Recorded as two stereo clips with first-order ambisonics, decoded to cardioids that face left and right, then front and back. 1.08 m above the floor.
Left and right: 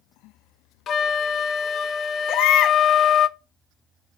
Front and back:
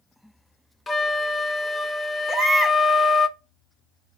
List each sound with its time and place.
0.9 s a flute: 70° left, 0.5 m
2.3 s a baby crying: 115° left, 0.9 m